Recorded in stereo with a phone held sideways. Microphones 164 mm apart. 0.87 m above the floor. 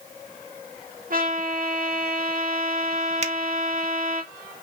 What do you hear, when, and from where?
1.1 s a trumpet: 60° right (ahead or behind), 2 m
3.2 s a finger snap: 45° right (ahead or behind), 0.7 m